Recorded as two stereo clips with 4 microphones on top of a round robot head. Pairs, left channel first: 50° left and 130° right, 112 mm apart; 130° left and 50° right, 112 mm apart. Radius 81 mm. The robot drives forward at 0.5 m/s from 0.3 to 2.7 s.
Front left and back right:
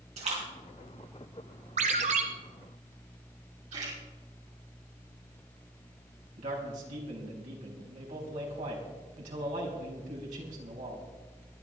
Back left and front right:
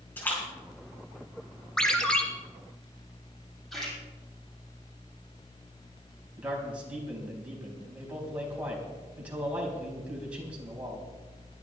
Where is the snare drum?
No snare drum in this recording.